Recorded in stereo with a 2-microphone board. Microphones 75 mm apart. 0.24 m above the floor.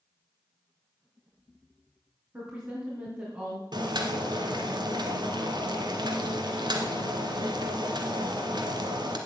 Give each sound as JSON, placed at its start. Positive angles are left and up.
{"t": 2.3, "sound": "a woman speaking", "side_deg": -25, "distance_m": 3.5}
{"t": 3.7, "sound": "boiling", "side_deg": -70, "distance_m": 1.6}